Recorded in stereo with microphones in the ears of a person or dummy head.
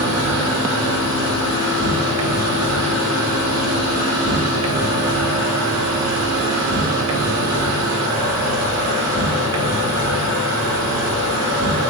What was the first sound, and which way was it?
An insect, 80° right.